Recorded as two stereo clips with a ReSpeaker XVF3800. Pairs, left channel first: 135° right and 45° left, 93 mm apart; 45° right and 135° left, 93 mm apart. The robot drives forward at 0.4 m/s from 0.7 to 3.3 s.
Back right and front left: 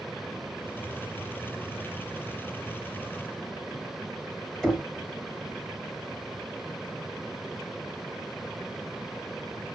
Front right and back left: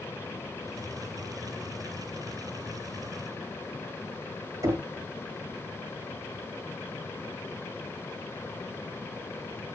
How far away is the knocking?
About 1.1 m.